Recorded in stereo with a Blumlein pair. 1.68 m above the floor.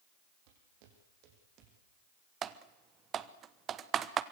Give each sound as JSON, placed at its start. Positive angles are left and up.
{"t": 0.5, "sound": "footsteps", "azimuth_deg": -50, "distance_m": 5.5}
{"t": 2.4, "sound": "typing on a keyboard", "azimuth_deg": -25, "distance_m": 1.1}